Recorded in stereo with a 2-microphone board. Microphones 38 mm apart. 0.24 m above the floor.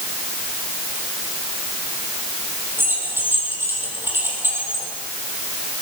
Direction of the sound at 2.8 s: 85° right.